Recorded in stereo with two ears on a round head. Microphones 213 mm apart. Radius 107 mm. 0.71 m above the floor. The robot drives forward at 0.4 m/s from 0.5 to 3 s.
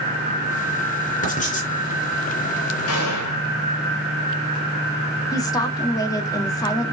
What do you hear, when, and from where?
1.2 s writing: 35° left (ahead or behind), 3 m
2.9 s a gunshot: 65° left (ahead or behind), 2.5 m
5.3 s a woman speaking: 15° left (ahead or behind), 1.7 m